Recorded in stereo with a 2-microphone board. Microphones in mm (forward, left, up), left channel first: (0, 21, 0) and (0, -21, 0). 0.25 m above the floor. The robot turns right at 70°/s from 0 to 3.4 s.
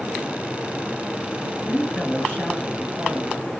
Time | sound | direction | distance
1.6 | a woman speaking | 85° left | 1.8 m